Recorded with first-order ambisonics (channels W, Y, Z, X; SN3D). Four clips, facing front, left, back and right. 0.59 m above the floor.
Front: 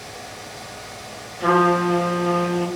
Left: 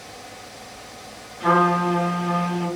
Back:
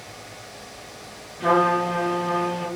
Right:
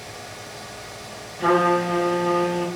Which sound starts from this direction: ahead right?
A trumpet, at 1.4 s.